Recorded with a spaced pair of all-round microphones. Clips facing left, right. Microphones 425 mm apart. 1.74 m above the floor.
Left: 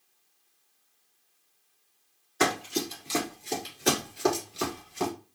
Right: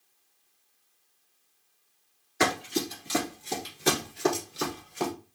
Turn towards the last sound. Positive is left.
turn(degrees=10)  # may be behind; listen again after turning